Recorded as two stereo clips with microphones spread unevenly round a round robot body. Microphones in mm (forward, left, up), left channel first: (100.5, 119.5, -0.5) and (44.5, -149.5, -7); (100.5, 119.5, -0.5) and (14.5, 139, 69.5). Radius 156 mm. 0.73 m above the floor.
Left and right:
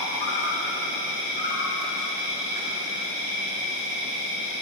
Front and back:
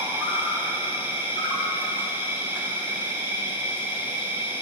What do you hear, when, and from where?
0.0 s an insect: 60° left, 2.5 m